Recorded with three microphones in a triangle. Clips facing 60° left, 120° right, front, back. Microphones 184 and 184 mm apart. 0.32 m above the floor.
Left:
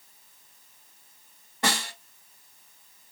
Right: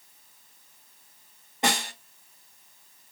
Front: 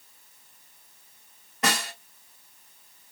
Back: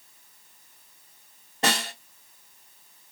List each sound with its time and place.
1.6 s a snare drum: 165° right, 1.3 m